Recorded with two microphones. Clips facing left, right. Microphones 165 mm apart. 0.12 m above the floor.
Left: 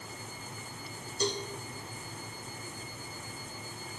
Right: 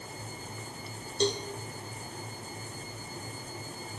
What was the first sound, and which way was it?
A cowbell, 30° right (ahead or behind).